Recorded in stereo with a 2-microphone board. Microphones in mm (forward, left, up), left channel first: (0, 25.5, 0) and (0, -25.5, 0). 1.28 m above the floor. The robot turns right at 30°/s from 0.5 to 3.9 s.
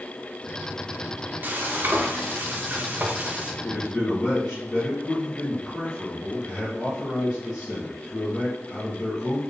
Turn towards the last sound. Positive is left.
turn(degrees=15)  # may be behind; listen again after turning